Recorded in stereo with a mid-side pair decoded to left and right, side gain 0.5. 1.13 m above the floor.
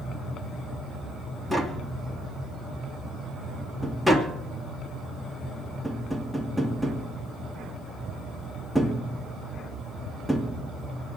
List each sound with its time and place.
1.5 s tapping: straight ahead, 2.5 m